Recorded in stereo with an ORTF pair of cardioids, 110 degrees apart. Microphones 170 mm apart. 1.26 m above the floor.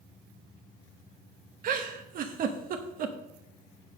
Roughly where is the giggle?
Ahead right.